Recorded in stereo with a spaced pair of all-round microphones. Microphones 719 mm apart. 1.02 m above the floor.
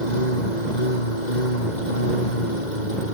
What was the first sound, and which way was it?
A lawn mower, 75° left (ahead or behind).